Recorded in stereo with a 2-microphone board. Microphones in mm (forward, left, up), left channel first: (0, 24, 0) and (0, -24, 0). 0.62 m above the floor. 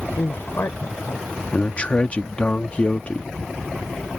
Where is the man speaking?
25° left (ahead or behind).